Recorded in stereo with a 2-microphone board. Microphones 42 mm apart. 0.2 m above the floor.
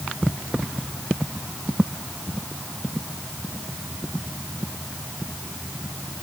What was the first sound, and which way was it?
Only background noise.